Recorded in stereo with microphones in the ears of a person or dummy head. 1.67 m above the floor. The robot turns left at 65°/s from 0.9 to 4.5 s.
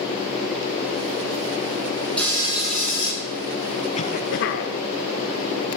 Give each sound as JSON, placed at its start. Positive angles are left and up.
{"t": 2.2, "sound": "frying", "azimuth_deg": 170, "distance_m": 4.5}
{"t": 3.9, "sound": "a cough", "azimuth_deg": 140, "distance_m": 0.8}